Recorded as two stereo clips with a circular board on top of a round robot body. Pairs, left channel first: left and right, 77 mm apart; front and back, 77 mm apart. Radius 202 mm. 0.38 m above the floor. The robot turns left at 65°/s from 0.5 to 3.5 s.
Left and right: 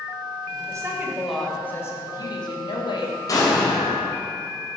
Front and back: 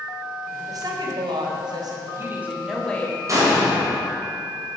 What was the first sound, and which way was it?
A woman speaking, 135° right.